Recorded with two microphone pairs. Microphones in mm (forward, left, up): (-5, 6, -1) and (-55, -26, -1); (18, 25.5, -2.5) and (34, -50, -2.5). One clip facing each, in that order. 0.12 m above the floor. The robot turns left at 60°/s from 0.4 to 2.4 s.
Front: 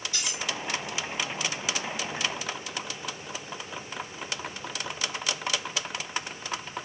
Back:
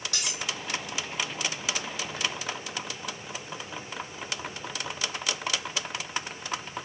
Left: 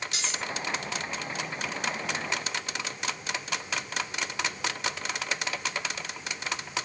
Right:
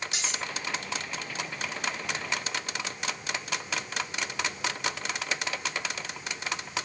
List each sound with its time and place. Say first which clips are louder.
0.1 s cutlery clinking: even, even; 145° right, 3 m